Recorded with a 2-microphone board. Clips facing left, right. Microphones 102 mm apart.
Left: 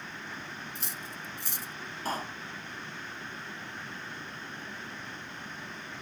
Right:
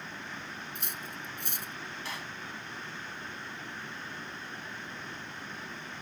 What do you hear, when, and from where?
0.8 s cutlery clinking: 60° right (ahead or behind)
2.0 s a pop: 40° left (ahead or behind)